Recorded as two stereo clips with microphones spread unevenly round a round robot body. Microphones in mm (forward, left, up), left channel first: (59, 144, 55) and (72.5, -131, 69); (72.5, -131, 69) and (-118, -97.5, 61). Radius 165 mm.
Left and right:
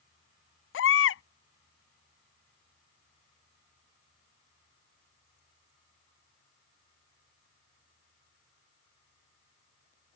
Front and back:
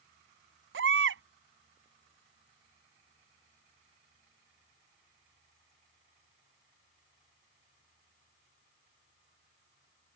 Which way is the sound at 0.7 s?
140° left.